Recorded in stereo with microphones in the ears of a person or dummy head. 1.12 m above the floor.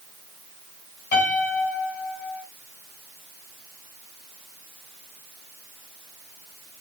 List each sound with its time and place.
1.1 s a piano: 50° left (ahead or behind), 7 m